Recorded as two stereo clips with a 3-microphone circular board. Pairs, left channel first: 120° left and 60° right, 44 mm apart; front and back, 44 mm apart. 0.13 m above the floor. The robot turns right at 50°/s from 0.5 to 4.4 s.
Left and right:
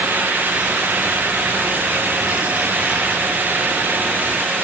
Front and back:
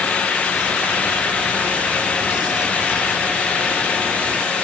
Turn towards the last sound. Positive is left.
No sound to turn to.